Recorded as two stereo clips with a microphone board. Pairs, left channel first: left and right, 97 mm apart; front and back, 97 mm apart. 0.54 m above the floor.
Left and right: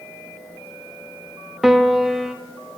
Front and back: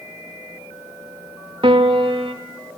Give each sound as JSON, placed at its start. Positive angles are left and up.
{"t": 1.6, "sound": "a piano", "azimuth_deg": -175, "distance_m": 0.7}